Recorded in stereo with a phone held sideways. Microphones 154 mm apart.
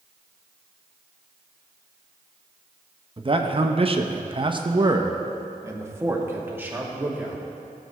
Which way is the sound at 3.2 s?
35° right (ahead or behind).